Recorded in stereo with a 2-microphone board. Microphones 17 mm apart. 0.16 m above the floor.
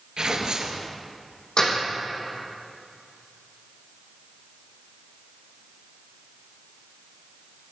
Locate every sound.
0.2 s tearing paper: 55° right (ahead or behind), 1.9 m
1.6 s a door slam: 55° left (ahead or behind), 4.5 m